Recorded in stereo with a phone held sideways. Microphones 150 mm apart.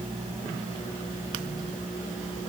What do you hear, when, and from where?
Only background noise.